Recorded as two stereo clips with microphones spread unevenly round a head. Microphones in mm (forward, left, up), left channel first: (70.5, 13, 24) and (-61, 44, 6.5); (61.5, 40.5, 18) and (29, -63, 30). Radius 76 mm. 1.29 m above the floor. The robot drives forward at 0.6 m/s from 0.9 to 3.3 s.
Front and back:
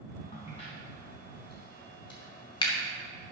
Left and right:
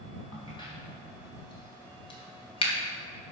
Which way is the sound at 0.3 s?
25° left.